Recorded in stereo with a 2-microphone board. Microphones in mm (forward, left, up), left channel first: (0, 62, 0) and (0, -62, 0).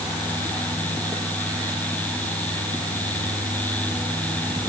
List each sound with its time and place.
Only background noise.